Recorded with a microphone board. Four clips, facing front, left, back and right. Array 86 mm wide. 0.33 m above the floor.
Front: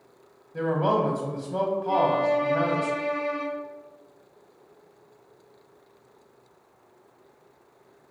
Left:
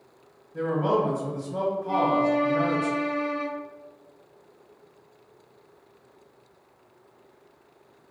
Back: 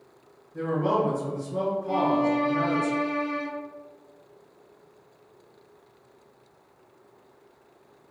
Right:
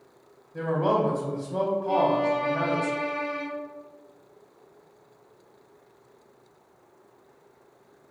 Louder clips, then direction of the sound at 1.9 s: Left 1 dB, front 1 dB; 110° right.